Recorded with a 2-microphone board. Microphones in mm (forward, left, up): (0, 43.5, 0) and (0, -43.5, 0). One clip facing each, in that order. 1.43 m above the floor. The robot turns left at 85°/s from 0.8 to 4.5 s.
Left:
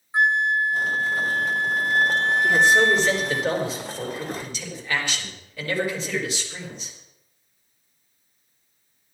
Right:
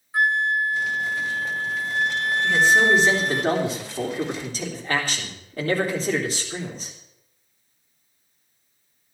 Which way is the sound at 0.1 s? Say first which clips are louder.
Left 1 dB; 155° left.